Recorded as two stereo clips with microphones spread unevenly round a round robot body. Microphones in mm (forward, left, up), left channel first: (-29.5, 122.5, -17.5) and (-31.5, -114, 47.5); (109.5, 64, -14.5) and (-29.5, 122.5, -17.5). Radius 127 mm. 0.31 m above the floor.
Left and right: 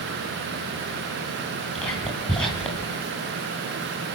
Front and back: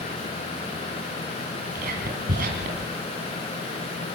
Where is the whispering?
170° left, 2.5 m.